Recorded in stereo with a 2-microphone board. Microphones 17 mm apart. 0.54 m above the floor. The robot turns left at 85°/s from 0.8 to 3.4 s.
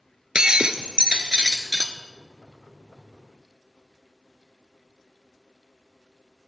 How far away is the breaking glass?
About 0.8 m.